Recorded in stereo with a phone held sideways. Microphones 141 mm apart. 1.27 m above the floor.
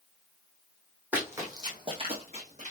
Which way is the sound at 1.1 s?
10° right (ahead or behind).